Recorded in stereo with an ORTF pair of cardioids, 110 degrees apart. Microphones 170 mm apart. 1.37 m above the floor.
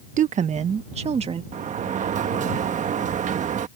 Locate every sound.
0.2 s a woman speaking: 45° right; by 1.4 s 35° right
1.5 s a sliding door: 45° right